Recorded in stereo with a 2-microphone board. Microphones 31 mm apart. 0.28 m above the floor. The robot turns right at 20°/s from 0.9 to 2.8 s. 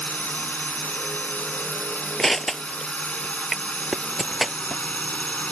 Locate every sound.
0.0 s a drone: 80° left; by 5.5 s 115° left
2.2 s crushing: 10° left (ahead or behind); by 4.8 s centre (ahead or behind)